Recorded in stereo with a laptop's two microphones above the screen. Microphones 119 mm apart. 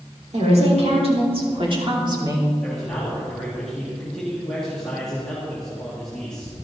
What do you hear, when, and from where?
0.3 s a woman speaking: 65° right (ahead or behind), 3.5 m; by 2.5 s 30° right (ahead or behind), 3 m
2.6 s a man speaking: 5° left (ahead or behind), 1.9 m